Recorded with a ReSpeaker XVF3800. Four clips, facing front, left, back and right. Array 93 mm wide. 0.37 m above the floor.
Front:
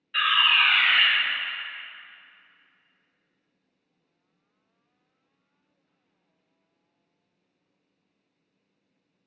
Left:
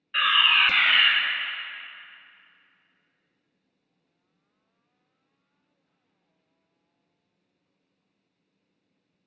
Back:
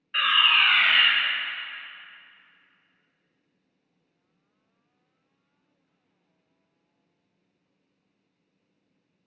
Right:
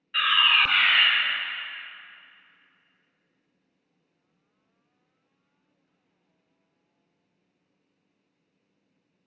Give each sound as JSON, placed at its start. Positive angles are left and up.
{"t": 0.1, "sound": "a fire alarm", "azimuth_deg": 160, "distance_m": 1.7}